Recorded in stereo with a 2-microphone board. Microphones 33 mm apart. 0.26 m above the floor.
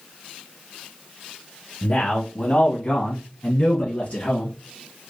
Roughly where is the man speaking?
Left.